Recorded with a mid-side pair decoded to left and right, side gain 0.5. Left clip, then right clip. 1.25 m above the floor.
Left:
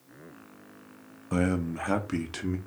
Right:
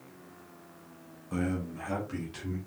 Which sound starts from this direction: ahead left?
A man speaking, at 1.3 s.